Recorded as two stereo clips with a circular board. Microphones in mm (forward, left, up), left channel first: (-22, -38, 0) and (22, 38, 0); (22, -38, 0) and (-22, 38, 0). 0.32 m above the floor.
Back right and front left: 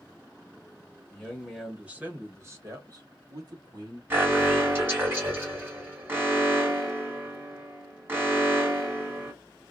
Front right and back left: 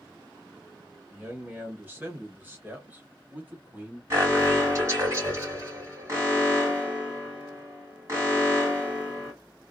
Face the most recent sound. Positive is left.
turn(degrees=105)